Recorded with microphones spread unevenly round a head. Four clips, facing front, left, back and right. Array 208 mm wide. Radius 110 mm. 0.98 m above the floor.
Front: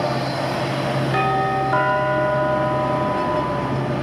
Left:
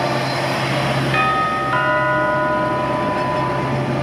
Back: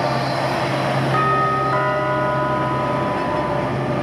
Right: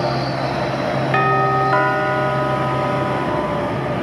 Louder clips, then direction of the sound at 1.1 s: Right 4 dB, even; 45° right.